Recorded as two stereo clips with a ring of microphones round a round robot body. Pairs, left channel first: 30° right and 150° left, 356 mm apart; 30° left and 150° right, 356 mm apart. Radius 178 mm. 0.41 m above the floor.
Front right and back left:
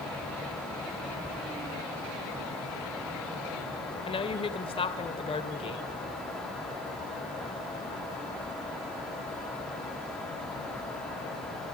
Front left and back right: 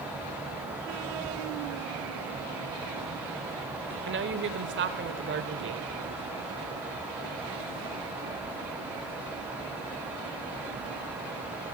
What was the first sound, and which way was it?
A woman speaking, 100° right.